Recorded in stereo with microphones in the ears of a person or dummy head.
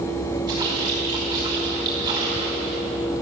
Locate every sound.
0.5 s a splash: 25° right (ahead or behind), 4.5 m